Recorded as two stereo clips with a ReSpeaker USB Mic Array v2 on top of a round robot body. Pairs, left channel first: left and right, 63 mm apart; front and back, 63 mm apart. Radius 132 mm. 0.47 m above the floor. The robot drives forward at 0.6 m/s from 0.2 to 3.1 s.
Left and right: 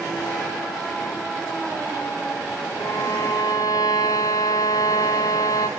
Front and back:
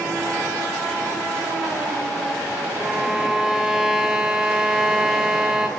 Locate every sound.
2.8 s a violin: 95° left, 3 m; by 5.7 s 100° left, 3 m